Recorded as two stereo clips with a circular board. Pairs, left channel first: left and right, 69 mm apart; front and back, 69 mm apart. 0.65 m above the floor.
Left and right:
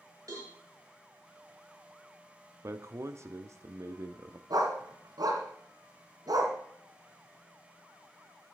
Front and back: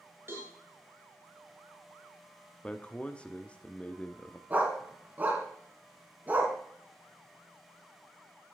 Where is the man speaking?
70° right, 0.9 m.